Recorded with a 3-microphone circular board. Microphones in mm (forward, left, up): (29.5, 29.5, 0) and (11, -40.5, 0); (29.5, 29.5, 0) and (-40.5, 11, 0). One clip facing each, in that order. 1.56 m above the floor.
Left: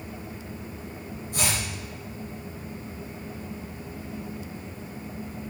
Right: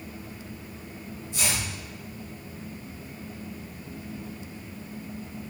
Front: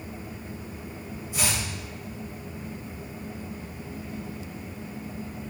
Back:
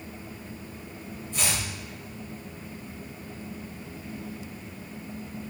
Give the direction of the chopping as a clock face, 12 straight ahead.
9 o'clock.